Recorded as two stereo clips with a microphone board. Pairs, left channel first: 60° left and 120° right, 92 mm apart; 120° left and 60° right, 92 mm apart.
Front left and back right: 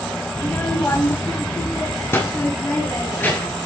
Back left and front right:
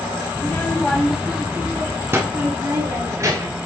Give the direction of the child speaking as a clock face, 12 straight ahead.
8 o'clock.